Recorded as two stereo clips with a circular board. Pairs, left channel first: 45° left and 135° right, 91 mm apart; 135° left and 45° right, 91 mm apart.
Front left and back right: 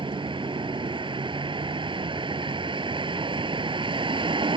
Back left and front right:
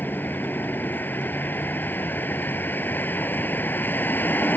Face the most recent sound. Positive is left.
turn(degrees=-155)